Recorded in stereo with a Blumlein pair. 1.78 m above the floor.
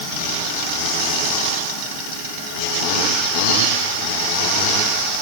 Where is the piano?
I don't hear a piano.